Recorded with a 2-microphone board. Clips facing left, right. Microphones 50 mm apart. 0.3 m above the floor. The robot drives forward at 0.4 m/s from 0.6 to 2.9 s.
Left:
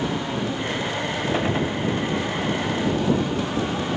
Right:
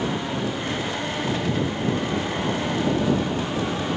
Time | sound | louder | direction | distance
1.3 | a gunshot | left 2 dB | 30° left (ahead or behind) | ?